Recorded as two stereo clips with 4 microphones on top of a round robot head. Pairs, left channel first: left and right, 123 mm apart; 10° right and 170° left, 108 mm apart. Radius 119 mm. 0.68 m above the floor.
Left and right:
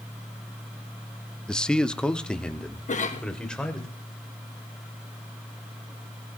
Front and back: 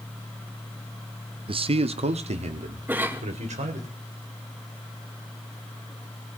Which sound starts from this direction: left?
A cough, at 2.9 s.